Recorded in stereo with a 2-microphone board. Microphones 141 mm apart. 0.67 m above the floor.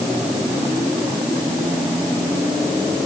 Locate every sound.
Only background noise.